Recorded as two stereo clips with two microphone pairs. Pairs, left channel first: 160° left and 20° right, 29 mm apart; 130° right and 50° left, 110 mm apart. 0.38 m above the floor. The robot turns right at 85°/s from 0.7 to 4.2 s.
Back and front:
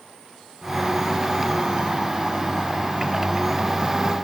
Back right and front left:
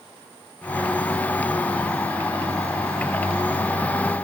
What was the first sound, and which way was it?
Only background noise.